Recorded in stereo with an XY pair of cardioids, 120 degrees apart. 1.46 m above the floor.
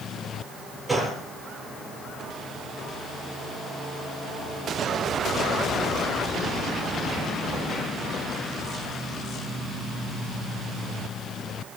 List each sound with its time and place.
0.9 s a gunshot: 5° right, 7 m